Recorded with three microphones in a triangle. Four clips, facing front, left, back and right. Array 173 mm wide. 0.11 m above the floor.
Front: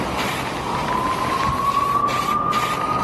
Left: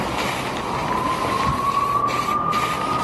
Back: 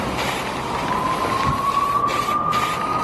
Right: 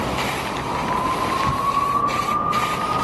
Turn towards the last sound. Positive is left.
turn(degrees=150)